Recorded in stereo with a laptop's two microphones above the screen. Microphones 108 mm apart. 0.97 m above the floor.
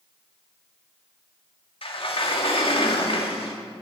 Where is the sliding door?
60° left (ahead or behind), 2 m.